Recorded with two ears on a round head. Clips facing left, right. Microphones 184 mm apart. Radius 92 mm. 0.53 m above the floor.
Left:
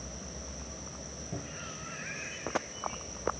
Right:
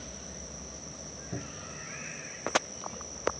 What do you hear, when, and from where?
1.3 s a cupboard door: 15° right (ahead or behind)